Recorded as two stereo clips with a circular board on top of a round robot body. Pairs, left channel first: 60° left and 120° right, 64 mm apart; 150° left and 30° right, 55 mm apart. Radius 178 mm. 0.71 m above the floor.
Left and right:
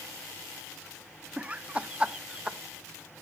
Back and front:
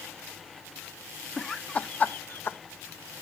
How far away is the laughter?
About 0.9 m.